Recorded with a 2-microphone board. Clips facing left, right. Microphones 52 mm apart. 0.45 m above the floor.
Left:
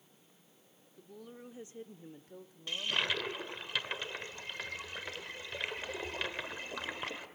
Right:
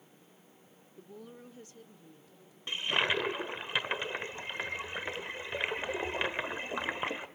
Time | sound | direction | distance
1.0 | a woman speaking | 20° right (ahead or behind) | 0.9 m
2.7 | a toilet flushing | 25° right (ahead or behind) | 1.3 m